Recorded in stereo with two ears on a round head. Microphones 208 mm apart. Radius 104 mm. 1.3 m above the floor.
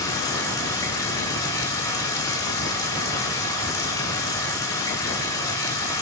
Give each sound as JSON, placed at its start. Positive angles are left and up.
{"t": 0.0, "sound": "running water", "side_deg": 20, "distance_m": 2.5}